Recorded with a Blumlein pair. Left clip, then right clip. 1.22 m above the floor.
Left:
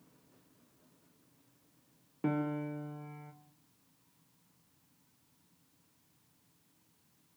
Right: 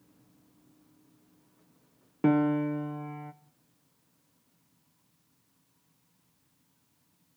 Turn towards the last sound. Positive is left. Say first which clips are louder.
# right 10 dB
turn(degrees=-25)